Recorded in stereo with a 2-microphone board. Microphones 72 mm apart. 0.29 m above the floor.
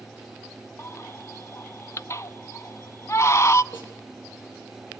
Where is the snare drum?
30° left (ahead or behind), 7.5 m.